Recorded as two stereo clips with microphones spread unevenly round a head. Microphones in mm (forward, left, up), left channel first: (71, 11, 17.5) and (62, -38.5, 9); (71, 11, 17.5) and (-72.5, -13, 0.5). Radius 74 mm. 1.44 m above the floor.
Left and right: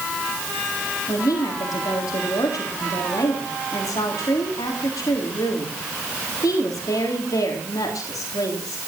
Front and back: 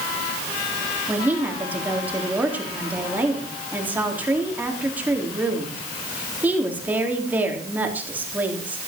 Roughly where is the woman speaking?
Left.